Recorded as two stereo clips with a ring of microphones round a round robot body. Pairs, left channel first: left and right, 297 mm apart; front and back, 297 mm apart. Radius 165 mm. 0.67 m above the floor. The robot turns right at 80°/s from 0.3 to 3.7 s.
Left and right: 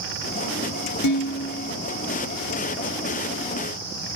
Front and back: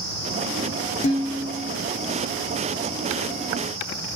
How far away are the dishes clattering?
About 1.2 m.